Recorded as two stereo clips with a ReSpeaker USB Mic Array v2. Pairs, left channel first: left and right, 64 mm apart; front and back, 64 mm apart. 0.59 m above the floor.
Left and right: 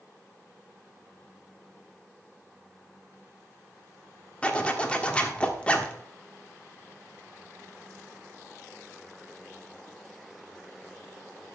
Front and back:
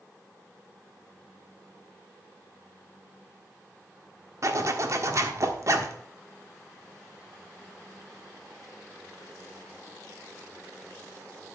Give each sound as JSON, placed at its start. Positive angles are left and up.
{"t": 4.4, "sound": "a zipper", "azimuth_deg": 160, "distance_m": 1.3}